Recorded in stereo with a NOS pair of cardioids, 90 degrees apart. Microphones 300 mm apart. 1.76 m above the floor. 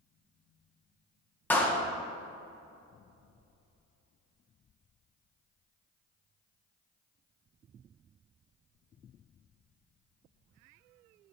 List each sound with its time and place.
1.5 s a clap: 5° left, 1.7 m